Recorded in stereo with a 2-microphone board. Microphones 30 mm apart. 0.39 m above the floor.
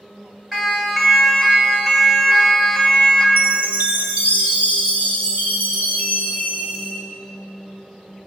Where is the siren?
5° right (ahead or behind), 3.5 m; by 3.3 s 20° left (ahead or behind), 3 m.